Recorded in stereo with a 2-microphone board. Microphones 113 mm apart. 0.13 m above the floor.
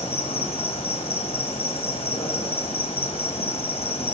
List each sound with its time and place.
0.0 s an insect: 60° left (ahead or behind), 1.3 m